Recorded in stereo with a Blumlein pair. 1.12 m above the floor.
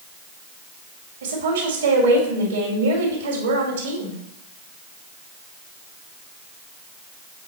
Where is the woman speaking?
65° right, 2.5 m.